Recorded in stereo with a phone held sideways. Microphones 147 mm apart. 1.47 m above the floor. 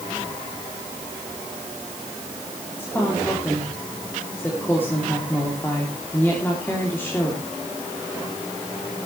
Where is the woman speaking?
15° left (ahead or behind), 3.5 m.